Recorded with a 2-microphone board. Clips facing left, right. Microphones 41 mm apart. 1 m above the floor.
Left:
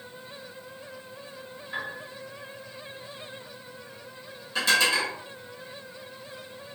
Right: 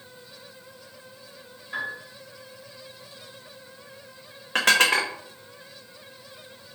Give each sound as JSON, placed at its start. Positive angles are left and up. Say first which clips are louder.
{"t": 1.7, "sound": "a piano", "louder": "right 3 dB", "side_deg": -5, "distance_m": 1.4}
{"t": 4.5, "sound": "dishes clattering", "louder": "right 3 dB", "side_deg": -60, "distance_m": 0.6}